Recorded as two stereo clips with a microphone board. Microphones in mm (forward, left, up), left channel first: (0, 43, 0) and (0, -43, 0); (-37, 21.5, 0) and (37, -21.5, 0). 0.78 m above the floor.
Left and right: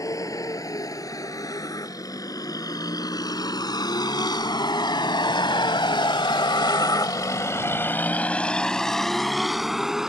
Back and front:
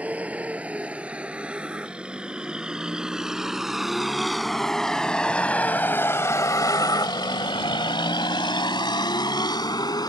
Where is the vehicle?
45° left; by 10.1 s 175° right.